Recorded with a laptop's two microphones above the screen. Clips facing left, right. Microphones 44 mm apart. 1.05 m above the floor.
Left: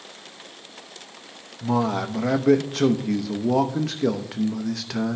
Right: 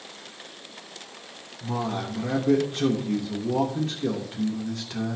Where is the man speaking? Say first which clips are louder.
Left 6 dB; 75° left (ahead or behind), 0.9 m.